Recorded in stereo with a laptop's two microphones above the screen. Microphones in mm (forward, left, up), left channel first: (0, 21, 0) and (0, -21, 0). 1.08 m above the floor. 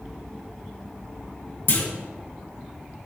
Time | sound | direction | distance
1.7 | a clunk | 50° left (ahead or behind) | 1.0 m